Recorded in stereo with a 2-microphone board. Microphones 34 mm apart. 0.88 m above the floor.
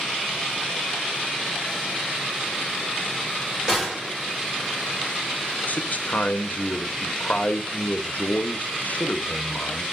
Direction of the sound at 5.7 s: 50° left (ahead or behind).